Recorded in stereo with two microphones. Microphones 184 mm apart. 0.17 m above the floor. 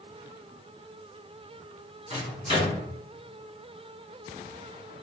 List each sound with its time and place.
2.1 s a microwave: 35° right (ahead or behind), 1.8 m